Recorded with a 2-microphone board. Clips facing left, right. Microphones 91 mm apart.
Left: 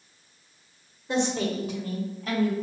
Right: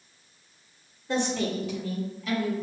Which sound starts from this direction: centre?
A woman speaking, at 1.1 s.